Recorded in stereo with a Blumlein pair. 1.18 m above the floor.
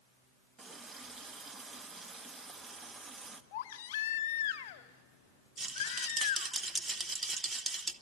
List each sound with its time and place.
0.6 s a running tap: 15° right, 1.1 m
3.5 s a baby crying: 50° left, 1.0 m
5.6 s a rattle: 15° right, 1.2 m